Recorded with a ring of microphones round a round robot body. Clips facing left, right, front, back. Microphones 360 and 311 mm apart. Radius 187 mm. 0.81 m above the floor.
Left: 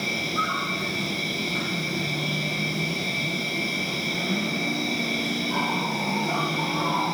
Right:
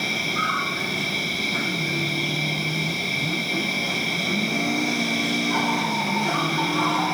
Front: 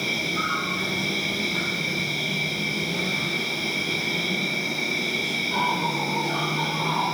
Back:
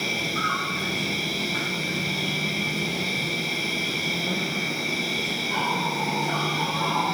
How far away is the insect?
About 5 m.